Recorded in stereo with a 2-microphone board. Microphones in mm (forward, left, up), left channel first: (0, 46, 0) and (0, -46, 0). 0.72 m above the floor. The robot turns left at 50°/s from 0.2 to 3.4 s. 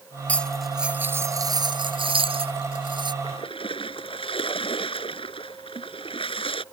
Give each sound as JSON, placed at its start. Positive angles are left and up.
{"t": 0.3, "sound": "cutlery clinking", "azimuth_deg": 15}
{"t": 3.2, "sound": "a splash", "side_deg": 70}